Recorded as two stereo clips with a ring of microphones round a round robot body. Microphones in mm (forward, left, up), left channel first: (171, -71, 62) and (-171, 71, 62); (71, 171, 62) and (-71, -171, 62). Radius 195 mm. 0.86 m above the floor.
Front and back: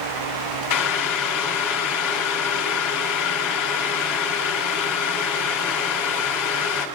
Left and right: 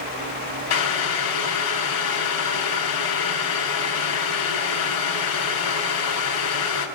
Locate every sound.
0.7 s boiling: 15° left, 3 m